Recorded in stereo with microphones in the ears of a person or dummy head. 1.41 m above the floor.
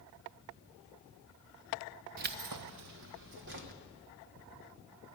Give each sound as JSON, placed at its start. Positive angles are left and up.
{"t": 2.2, "sound": "keys jangling", "side_deg": -45, "distance_m": 0.7}